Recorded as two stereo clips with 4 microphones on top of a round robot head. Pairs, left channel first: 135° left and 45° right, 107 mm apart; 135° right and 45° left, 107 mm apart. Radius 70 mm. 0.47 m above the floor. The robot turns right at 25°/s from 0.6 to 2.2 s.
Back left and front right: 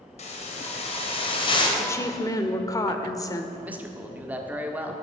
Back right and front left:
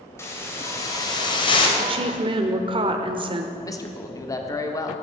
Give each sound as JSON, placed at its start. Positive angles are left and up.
{"t": 0.2, "sound": "a hiss", "azimuth_deg": 160, "distance_m": 2.0}
{"t": 1.8, "sound": "a woman speaking", "azimuth_deg": 70, "distance_m": 1.3}
{"t": 3.6, "sound": "a man speaking", "azimuth_deg": -110, "distance_m": 1.5}